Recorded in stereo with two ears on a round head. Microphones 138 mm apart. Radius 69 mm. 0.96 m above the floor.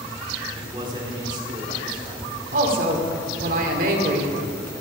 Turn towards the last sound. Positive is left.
turn(degrees=-55)  # may be behind; listen again after turning